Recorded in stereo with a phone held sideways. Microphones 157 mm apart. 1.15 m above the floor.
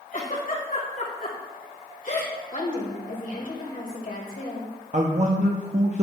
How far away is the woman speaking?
About 1.7 m.